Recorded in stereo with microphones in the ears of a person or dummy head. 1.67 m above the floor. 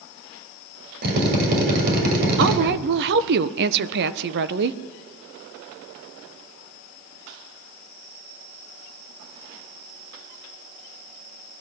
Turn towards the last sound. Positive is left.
turn(degrees=-60)  # may be behind; listen again after turning